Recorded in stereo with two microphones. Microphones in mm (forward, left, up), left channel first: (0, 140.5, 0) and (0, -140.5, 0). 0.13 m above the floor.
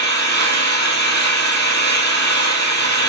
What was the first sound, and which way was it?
An engine running, 35° left (ahead or behind).